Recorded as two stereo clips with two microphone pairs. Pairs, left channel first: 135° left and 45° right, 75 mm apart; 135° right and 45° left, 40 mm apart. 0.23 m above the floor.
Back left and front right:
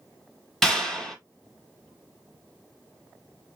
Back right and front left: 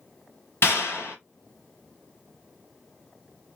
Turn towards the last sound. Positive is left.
turn(degrees=-140)